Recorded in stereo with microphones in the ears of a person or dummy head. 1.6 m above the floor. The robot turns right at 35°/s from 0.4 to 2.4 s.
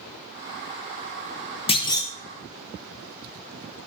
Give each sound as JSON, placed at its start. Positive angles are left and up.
{"t": 1.7, "sound": "a clunk", "side_deg": 30, "distance_m": 0.5}